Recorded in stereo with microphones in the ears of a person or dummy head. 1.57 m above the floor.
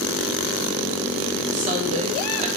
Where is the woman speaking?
40° right (ahead or behind), 0.8 m.